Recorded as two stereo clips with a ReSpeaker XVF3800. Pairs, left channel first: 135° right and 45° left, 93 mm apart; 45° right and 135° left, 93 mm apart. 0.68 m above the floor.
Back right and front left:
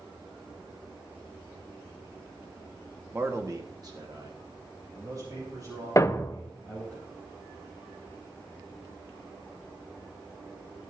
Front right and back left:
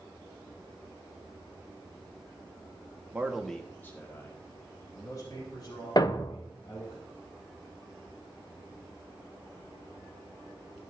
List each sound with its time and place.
3.1 s a man speaking: 85° left, 1.1 m; by 7.0 s 5° right, 5.5 m
6.0 s a thud: 80° right, 0.6 m